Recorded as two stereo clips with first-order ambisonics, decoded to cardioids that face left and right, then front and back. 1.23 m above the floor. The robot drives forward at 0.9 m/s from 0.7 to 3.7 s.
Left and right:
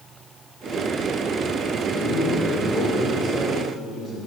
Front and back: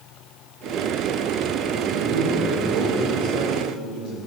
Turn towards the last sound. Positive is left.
turn(degrees=175)